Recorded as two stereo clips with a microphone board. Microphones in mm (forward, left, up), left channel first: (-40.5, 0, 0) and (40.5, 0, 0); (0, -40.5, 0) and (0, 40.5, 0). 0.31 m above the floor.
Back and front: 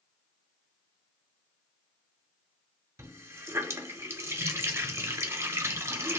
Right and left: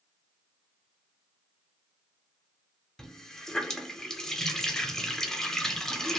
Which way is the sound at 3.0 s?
15° right.